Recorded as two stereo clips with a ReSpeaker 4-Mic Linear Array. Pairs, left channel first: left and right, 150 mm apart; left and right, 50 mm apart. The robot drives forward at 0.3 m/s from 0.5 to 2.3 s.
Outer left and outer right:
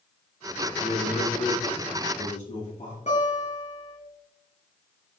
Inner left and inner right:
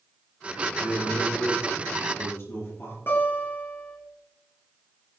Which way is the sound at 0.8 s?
50° left (ahead or behind).